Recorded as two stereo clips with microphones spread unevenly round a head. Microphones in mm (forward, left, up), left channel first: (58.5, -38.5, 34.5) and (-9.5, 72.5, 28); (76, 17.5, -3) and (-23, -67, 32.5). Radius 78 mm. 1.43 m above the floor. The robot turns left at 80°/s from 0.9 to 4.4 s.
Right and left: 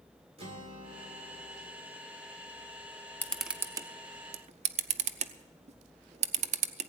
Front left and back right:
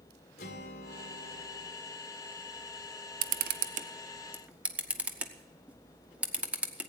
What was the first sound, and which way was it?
A guitar, 80° left.